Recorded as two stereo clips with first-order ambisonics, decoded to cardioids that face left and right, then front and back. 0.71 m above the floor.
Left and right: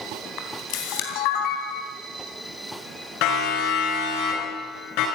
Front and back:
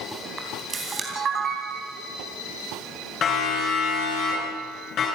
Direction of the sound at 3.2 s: 60° left.